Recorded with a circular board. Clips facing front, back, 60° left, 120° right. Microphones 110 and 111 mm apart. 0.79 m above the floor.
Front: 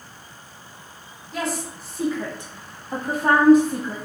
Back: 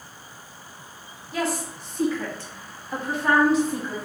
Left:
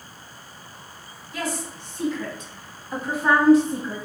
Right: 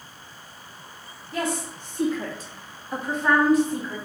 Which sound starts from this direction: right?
A woman speaking, at 1.3 s.